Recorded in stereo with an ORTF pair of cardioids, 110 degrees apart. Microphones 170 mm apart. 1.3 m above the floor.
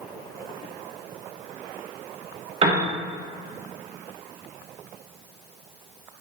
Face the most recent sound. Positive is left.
turn(degrees=-35)